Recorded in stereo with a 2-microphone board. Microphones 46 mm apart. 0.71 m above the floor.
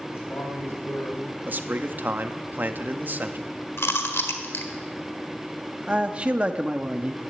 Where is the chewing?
70° left (ahead or behind), 1.4 m.